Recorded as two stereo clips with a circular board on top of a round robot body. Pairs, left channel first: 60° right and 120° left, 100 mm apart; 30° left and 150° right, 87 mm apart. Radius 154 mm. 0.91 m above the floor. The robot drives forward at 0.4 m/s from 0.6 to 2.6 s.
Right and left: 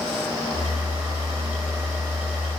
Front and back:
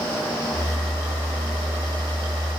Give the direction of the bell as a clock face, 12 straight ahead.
No bell in this recording.